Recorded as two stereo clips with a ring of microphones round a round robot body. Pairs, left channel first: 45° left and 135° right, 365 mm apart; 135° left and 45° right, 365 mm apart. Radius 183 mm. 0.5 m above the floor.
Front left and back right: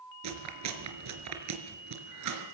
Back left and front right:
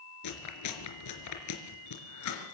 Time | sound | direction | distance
0.2 | chewing | straight behind | 4 m